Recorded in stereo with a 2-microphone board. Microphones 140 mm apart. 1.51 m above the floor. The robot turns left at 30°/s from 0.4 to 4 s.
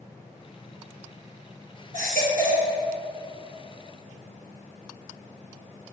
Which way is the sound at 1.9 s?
65° right (ahead or behind).